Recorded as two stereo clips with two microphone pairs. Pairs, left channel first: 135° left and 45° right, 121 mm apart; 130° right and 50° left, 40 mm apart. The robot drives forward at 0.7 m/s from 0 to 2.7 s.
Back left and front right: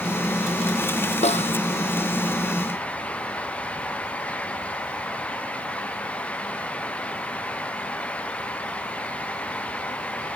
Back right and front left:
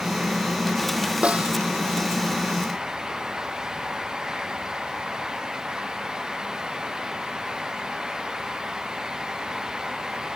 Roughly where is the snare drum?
Behind left.